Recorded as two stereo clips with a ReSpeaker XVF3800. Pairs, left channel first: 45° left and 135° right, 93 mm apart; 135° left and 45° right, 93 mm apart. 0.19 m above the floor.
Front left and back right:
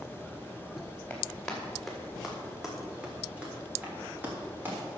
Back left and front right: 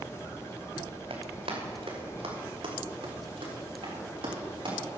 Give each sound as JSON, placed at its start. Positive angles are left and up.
{"t": 1.1, "sound": "running footsteps", "azimuth_deg": -30, "distance_m": 3.5}